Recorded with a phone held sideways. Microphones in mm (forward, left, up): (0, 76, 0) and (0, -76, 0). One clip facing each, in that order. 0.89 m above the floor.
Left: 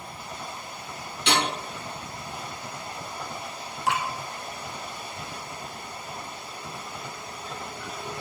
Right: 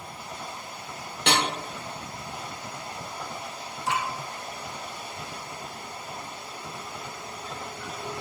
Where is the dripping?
65° left (ahead or behind), 1.0 m.